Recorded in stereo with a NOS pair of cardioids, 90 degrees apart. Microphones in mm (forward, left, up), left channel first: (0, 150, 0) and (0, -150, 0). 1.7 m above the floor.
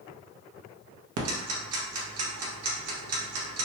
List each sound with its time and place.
1.2 s ticking: 55° right, 0.7 m